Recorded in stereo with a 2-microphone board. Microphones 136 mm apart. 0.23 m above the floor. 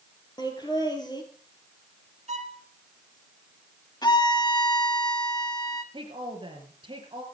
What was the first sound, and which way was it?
Laughter, 30° left (ahead or behind).